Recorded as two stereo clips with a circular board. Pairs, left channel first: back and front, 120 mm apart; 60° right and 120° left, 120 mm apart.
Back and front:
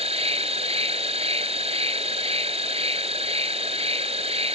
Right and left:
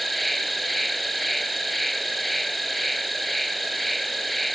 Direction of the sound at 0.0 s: 30° left.